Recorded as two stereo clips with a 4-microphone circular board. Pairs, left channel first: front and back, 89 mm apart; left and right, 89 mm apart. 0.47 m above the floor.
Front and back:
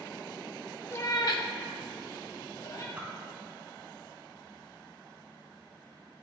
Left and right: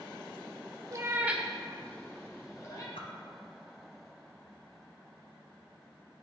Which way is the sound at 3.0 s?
110° left.